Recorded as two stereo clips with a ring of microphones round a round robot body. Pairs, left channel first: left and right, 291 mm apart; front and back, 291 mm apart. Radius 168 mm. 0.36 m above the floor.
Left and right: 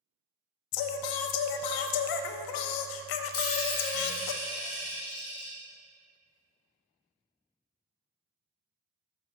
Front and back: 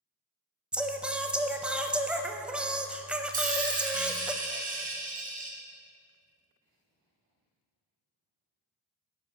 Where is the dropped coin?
115° left, 2.5 m.